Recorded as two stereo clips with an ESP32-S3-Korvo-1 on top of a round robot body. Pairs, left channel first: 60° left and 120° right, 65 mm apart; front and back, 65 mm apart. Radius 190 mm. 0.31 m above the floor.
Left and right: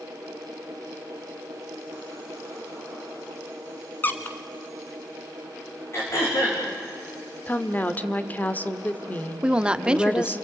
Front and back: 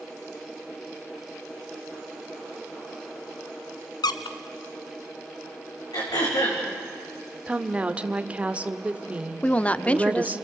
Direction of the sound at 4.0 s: Straight ahead.